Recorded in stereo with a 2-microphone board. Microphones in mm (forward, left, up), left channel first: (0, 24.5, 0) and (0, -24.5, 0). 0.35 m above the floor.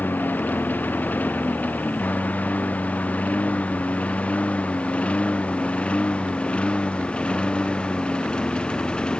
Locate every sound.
0.0 s a lawn mower: 40° left (ahead or behind); by 9.2 s 20° left (ahead or behind)